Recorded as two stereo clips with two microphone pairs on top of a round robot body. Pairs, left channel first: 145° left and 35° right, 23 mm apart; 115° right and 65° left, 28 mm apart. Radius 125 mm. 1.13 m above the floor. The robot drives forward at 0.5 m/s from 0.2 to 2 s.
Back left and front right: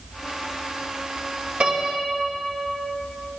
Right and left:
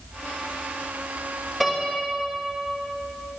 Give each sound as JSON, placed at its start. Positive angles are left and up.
{"t": 1.6, "sound": "a piano", "azimuth_deg": -25, "distance_m": 2.0}